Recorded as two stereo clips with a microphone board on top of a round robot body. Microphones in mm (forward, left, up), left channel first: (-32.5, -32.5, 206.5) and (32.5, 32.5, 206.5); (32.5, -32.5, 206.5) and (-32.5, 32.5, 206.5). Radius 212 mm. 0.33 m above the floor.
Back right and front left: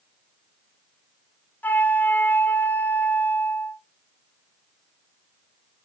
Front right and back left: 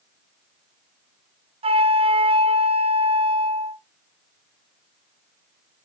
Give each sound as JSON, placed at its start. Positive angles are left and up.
{"t": 1.6, "sound": "a flute", "azimuth_deg": 150, "distance_m": 1.0}